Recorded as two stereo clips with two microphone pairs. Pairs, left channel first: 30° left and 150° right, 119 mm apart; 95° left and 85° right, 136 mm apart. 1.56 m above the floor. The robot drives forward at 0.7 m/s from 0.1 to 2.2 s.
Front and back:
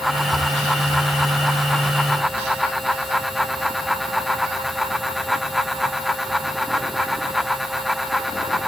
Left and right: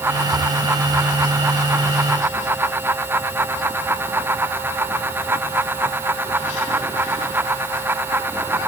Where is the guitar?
No guitar in this recording.